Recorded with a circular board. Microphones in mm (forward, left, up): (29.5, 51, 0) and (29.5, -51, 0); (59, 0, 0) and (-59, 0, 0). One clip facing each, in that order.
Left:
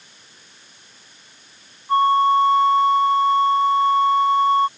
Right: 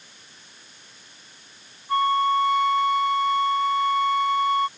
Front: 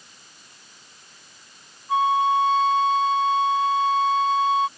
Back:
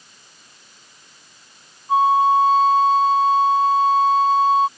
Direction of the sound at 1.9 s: 135° left.